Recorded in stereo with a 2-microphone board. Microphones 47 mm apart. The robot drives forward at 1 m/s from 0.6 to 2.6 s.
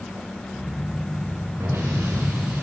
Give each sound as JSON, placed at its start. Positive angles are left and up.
{"t": 1.6, "sound": "an explosion", "side_deg": -75, "distance_m": 9.0}